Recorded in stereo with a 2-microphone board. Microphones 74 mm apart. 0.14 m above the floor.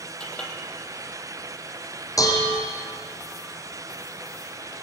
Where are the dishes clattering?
50° left (ahead or behind), 4 m.